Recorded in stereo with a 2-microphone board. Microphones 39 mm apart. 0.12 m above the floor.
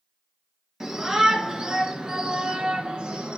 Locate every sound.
0.8 s a shout: 10° right (ahead or behind), 2.5 m; by 3.4 s 25° right (ahead or behind), 1.8 m